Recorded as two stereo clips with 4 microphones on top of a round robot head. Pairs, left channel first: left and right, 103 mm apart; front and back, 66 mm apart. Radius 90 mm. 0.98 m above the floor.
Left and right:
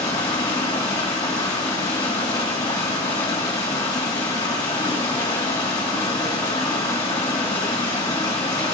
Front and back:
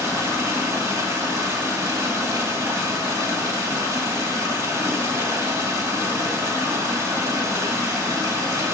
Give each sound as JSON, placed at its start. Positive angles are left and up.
{"t": 0.0, "sound": "running water", "azimuth_deg": 150, "distance_m": 2.5}